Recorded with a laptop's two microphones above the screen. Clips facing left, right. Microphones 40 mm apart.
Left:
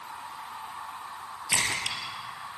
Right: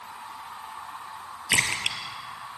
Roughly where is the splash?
Right.